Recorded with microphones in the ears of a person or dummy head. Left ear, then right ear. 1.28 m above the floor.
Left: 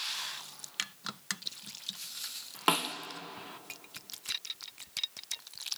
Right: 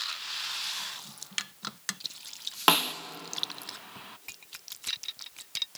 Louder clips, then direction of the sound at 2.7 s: Right 5 dB; 15° right (ahead or behind).